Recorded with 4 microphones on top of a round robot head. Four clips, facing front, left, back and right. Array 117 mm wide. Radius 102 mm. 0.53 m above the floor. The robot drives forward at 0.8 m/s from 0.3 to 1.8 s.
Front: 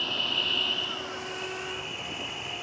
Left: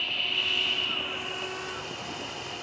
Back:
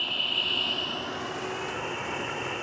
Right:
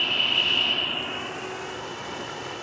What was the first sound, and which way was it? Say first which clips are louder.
An insect: right 6 dB, front 1 dB; 75° right.